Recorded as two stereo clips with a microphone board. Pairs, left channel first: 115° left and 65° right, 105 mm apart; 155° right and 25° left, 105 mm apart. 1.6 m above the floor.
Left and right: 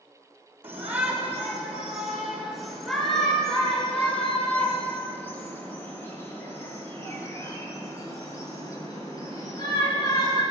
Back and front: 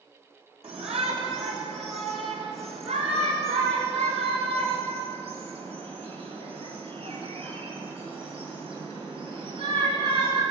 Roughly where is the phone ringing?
I don't hear a phone ringing.